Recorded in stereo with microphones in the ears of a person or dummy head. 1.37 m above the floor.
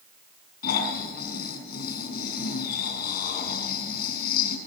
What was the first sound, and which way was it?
Snoring, 55° left (ahead or behind).